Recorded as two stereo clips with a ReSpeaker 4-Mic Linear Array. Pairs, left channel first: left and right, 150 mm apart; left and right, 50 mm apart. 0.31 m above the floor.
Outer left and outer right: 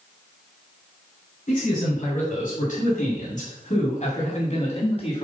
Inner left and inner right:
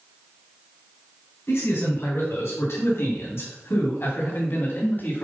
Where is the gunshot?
No gunshot in this recording.